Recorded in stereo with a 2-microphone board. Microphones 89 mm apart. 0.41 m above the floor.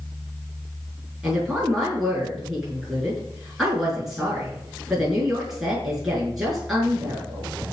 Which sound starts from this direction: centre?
A woman speaking, at 1.2 s.